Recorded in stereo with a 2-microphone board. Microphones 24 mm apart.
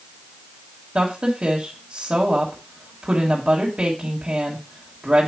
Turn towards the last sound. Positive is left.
turn(degrees=-45)  # may be behind; listen again after turning